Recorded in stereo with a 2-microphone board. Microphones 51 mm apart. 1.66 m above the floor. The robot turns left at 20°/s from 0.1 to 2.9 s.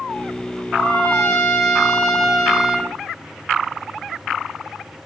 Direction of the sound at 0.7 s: 40° left.